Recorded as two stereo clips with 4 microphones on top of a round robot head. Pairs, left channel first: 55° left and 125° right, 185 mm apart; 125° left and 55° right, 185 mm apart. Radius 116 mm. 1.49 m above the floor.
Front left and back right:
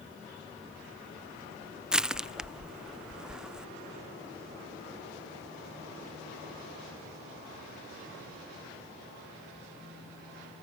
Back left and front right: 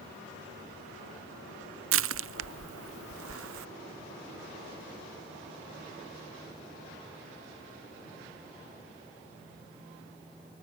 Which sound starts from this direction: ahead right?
Crushing, at 1.9 s.